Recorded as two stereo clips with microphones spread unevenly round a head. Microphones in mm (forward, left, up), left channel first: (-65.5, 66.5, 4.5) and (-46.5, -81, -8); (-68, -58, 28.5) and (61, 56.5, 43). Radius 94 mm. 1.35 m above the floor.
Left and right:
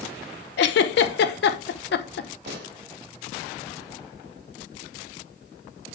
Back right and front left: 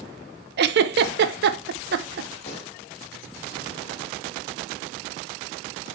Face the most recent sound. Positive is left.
turn(degrees=-85)